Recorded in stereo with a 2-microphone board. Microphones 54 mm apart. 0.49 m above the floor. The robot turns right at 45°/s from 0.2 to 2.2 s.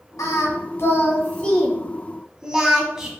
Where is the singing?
75° left (ahead or behind), 1.1 m; by 3.1 s 15° right (ahead or behind), 1.1 m.